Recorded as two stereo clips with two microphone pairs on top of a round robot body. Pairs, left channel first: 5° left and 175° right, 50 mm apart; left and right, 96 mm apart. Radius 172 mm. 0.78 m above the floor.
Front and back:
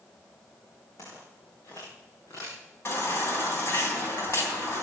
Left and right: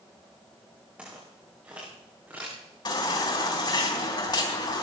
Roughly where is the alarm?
I don't hear an alarm.